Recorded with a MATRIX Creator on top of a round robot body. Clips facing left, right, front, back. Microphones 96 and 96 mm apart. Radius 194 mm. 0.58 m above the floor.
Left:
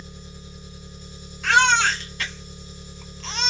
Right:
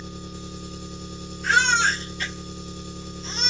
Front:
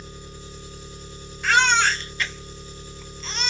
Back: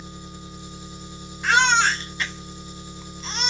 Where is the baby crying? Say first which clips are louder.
Left 2 dB, back 1 dB; 105° left, 1.3 m.